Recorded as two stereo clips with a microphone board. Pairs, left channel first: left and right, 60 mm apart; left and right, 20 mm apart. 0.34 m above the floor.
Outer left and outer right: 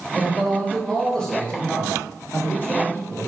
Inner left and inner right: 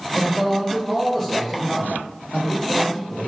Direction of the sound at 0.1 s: Centre (ahead or behind).